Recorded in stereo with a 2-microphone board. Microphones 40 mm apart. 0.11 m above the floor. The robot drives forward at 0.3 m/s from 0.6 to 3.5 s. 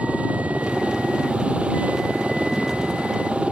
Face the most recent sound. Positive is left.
turn(degrees=-35)  # may be behind; listen again after turning